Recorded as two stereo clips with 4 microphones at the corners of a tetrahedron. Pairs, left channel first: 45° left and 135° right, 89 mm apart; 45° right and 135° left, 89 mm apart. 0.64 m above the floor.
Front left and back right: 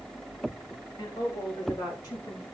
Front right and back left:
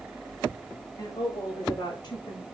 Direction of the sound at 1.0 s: 5° left.